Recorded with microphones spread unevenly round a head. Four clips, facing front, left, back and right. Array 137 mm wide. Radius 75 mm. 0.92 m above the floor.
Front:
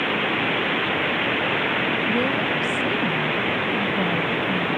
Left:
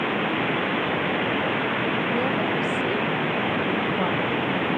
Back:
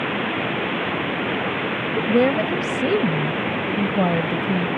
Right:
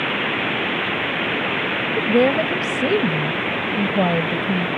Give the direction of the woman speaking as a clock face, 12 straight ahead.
4 o'clock.